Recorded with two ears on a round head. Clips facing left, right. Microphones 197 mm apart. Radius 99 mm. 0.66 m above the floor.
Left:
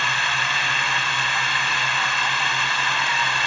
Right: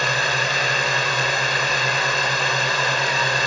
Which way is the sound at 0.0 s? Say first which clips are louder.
Right 6 dB; 40° right (ahead or behind).